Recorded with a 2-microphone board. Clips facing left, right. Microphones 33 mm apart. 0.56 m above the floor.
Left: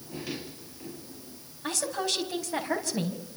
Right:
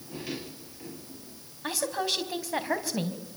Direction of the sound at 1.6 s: 10° right (ahead or behind).